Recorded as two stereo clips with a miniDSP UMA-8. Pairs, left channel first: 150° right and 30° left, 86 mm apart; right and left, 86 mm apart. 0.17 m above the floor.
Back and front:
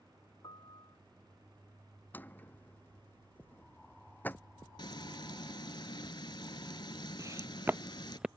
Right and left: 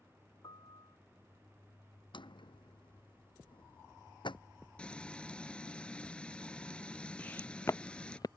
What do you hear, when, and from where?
0.4 s a piano: 120° right
2.1 s a drawer: 80° right
4.8 s frying: 165° right
7.2 s footsteps: 20° right; by 8.3 s 55° right